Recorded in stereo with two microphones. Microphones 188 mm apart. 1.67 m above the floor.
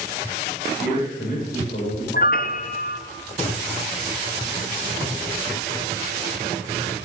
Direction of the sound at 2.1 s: 50° left (ahead or behind).